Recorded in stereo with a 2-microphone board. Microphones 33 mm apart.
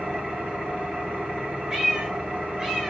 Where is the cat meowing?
15° right (ahead or behind), 8 m.